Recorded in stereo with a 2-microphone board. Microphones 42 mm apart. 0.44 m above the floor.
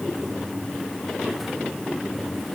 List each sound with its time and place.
Only background noise.